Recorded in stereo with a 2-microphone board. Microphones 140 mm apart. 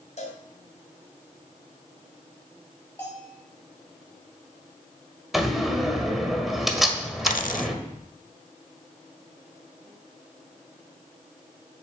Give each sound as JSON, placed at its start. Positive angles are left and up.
{"t": 0.2, "sound": "a cowbell", "side_deg": 55, "distance_m": 2.5}
{"t": 3.0, "sound": "a bell", "side_deg": 15, "distance_m": 3.0}
{"t": 5.3, "sound": "a door slam", "side_deg": 0, "distance_m": 1.6}
{"t": 7.3, "sound": "a dropped coin", "side_deg": 70, "distance_m": 0.6}